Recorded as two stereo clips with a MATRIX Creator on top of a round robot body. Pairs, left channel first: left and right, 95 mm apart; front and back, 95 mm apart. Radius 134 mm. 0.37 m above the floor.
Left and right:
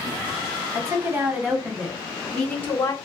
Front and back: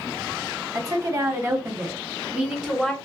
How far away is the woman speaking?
About 1.6 m.